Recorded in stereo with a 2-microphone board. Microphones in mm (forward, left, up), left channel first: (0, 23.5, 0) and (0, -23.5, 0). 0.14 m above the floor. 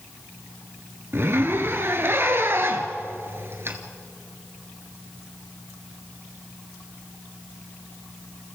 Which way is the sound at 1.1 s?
55° right (ahead or behind).